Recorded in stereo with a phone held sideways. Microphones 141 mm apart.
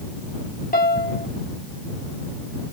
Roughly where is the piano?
Left.